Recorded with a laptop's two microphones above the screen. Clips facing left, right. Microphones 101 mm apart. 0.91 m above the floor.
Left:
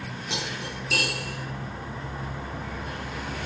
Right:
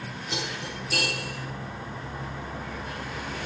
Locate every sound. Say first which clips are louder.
0.3 s cutlery clinking: even; 80° left, 6.5 m